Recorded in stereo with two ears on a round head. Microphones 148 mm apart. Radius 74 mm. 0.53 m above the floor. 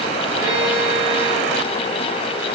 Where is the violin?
30° right (ahead or behind), 5.5 m.